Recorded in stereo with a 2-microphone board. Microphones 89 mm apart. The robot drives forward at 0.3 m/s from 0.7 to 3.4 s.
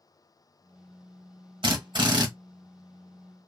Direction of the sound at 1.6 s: 65° right (ahead or behind).